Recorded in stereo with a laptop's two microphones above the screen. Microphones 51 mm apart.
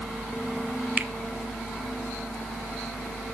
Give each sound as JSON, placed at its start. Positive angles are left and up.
{"t": 1.0, "sound": "a finger snap", "side_deg": -35, "distance_m": 0.9}